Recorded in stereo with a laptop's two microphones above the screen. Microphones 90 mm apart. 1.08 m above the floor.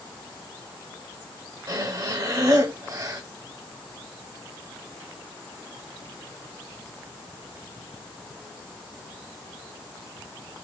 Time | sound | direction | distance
1.7 | breathing | 40° right (ahead or behind) | 1.0 m